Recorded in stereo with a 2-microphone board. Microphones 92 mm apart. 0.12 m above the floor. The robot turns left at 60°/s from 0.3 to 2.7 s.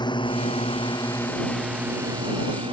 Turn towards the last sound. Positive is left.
turn(degrees=-75)  # may be behind; listen again after turning